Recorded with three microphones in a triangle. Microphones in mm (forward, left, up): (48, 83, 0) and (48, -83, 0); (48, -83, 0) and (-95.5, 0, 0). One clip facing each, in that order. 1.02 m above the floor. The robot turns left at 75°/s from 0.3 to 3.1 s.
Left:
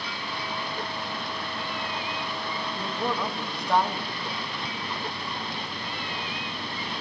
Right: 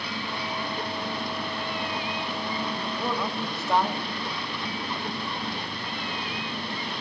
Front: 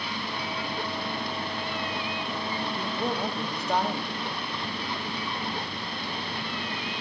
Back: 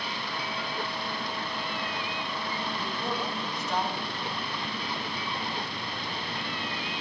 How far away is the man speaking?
About 2.5 m.